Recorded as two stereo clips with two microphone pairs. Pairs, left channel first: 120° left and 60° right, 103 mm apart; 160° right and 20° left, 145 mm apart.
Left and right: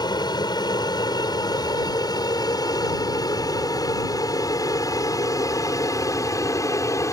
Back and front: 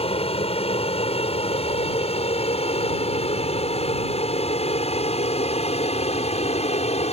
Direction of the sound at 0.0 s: 160° left.